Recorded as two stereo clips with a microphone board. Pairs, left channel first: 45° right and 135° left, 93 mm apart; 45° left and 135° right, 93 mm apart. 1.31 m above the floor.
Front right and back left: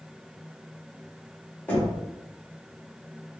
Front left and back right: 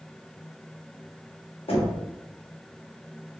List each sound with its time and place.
1.7 s knocking: 25° left, 1.1 m